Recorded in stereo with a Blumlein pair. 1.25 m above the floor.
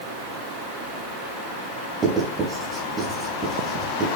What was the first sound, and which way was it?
Writing, 15° right.